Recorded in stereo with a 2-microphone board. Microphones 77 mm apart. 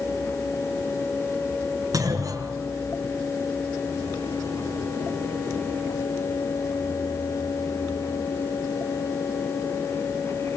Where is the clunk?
55° right (ahead or behind), 5.5 m.